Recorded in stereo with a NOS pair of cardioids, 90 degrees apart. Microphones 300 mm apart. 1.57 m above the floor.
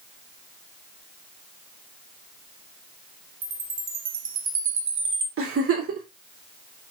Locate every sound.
3.4 s a chime: 40° right, 1.3 m
5.4 s a giggle: 45° right, 2 m